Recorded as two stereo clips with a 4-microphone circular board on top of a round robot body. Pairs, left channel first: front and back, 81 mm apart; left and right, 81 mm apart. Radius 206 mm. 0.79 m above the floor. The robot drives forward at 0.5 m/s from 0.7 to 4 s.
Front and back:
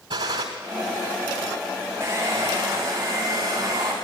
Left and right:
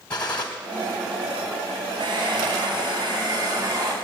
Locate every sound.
0.1 s a gunshot: 165° left, 0.8 m
2.0 s a hair dryer: 120° right, 4 m; by 3.9 s 130° right, 4.5 m